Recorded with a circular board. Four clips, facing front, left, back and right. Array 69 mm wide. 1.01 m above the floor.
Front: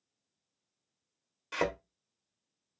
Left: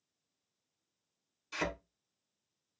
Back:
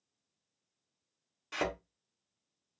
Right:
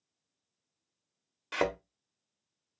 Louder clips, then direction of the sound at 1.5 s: Right 7 dB, front 3 dB; 80° right.